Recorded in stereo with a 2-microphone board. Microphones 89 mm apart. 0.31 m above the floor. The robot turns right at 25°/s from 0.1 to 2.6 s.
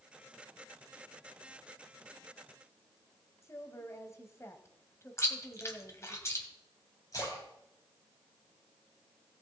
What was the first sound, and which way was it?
A woman speaking, 35° left (ahead or behind).